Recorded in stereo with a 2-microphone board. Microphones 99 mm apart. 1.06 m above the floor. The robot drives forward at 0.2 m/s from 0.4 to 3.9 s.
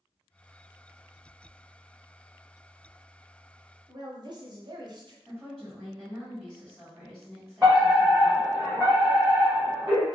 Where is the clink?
I don't hear a clink.